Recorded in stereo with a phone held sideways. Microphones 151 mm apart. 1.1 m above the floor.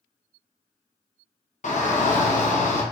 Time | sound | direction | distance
1.6 | a shout | 55° left (ahead or behind) | 0.9 m